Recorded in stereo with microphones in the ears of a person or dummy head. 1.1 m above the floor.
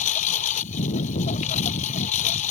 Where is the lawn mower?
45° left (ahead or behind).